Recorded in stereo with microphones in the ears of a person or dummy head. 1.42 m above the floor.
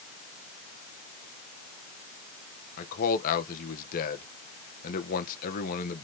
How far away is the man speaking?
About 1.4 m.